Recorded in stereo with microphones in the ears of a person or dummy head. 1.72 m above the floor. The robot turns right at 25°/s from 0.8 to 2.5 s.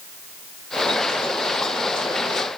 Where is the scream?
No scream in this recording.